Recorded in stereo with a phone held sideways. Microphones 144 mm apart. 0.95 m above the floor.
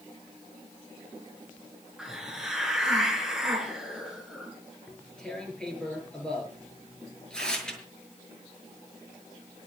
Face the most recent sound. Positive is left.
turn(degrees=5)  # may be behind; listen again after turning